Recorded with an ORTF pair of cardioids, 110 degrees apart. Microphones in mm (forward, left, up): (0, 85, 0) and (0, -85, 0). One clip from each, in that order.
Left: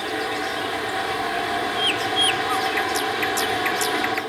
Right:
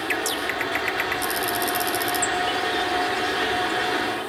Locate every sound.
0.0 s a fan: 20° left, 5 m